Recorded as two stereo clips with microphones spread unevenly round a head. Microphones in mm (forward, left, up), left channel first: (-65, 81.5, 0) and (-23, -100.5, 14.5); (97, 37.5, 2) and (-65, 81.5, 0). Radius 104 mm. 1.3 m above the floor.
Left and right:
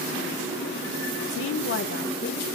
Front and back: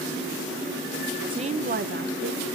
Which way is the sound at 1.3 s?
100° left.